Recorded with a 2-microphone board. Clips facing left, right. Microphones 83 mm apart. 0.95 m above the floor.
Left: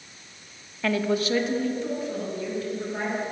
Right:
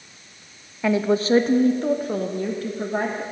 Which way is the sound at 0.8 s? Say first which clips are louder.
Right 4 dB; 15° right (ahead or behind).